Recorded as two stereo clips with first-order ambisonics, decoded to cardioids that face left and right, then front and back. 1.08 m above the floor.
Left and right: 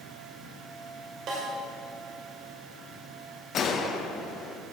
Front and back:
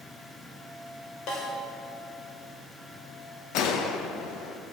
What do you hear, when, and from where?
1.3 s a snare drum: 40° right, 2.5 m
3.5 s a gunshot: 35° left, 0.7 m